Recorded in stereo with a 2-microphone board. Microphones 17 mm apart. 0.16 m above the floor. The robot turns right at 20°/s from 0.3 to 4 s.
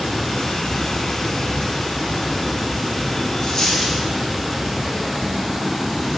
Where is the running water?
110° left, 1.8 m; by 6.2 s straight behind, 1.8 m.